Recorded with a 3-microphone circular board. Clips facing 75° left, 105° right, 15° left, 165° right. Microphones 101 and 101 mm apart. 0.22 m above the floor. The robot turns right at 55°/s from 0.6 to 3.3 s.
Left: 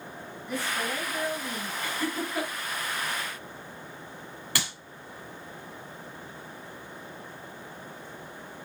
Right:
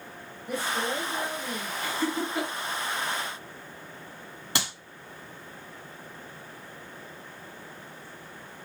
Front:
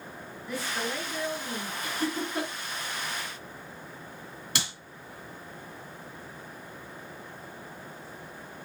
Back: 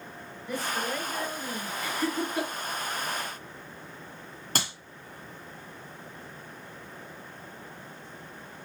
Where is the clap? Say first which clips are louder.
Right 2 dB, back 3 dB; 160° right, 1.7 m.